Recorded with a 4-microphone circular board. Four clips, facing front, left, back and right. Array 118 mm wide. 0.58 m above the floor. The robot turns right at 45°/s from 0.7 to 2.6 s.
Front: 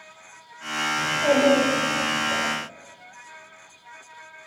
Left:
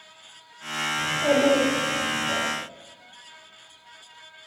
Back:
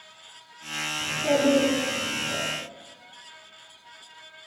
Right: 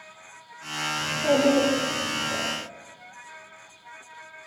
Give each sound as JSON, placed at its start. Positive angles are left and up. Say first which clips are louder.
{"t": 1.0, "sound": "a child speaking", "louder": "left 1 dB, front 3 dB", "azimuth_deg": 35, "distance_m": 5.0}